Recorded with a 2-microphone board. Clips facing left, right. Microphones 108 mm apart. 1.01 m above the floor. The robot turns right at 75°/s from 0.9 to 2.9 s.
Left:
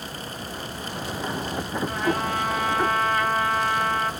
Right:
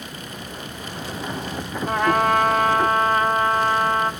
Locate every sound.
1.9 s a trumpet: 120° right, 1.6 m; by 4.1 s 40° right, 1.6 m